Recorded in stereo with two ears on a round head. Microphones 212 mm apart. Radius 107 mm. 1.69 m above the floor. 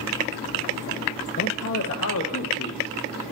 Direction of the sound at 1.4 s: 50° left (ahead or behind).